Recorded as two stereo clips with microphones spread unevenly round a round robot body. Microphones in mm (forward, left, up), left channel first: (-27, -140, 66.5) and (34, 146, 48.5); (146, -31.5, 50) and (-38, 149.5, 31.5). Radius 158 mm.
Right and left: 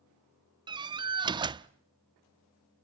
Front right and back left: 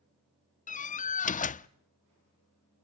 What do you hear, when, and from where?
0.7 s a door slam: 10° left, 0.5 m